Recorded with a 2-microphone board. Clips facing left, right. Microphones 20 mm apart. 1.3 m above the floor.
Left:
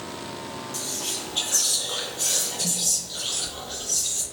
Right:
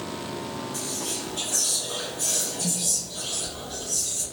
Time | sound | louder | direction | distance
0.7 | whispering | left 4 dB | 50° left (ahead or behind) | 0.8 m